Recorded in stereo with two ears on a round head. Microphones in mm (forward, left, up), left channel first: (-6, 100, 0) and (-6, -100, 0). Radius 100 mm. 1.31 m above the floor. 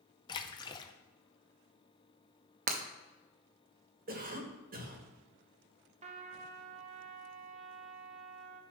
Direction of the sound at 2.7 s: 35° right (ahead or behind).